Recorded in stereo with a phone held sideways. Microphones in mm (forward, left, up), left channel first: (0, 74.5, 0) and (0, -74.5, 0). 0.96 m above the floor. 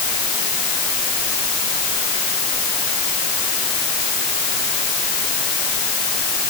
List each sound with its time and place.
Only background noise.